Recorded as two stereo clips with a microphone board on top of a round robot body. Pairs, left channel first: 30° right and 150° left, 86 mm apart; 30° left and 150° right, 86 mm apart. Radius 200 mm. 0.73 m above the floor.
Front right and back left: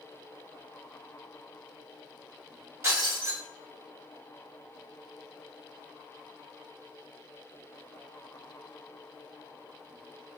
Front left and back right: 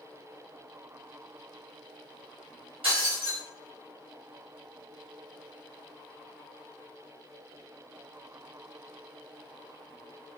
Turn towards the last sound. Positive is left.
turn(degrees=-155)